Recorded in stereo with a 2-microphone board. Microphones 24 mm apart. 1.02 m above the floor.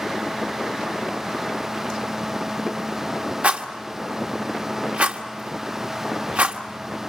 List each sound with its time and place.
3.4 s a rattle: 75° right (ahead or behind), 1.4 m